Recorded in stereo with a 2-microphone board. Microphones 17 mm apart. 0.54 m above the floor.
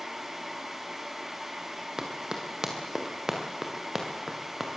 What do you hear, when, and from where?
2.0 s running footsteps: 35° right (ahead or behind), 4.5 m; by 4.7 s 5° right (ahead or behind), 5 m